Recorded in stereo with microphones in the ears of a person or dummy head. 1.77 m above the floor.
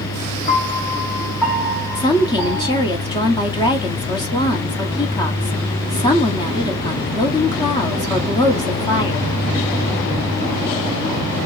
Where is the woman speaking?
25° left (ahead or behind), 1.0 m.